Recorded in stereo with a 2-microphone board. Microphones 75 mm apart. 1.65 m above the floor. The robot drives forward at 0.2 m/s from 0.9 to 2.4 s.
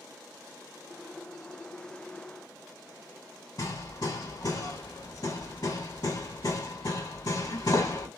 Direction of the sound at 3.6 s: 60° left (ahead or behind).